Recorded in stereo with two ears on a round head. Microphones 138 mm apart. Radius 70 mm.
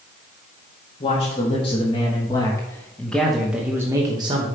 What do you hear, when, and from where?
1.0 s a man speaking: 45° left (ahead or behind), 1.7 m; by 4.5 s 35° right (ahead or behind), 1.0 m